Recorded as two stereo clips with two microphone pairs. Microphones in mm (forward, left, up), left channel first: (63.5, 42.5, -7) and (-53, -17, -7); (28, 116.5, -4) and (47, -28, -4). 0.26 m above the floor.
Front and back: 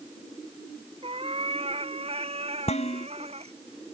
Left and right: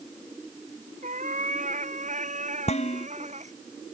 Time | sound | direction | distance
1.0 | a cat meowing | 110° right | ?
2.7 | dishes clattering | 60° left | ?